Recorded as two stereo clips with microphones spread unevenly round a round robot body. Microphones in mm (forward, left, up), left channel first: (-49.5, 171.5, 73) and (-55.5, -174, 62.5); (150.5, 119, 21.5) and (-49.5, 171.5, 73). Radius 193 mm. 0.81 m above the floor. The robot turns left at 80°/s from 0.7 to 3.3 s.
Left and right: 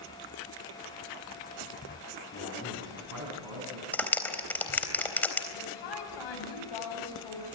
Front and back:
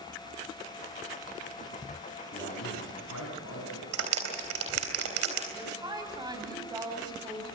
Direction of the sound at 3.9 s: 175° left.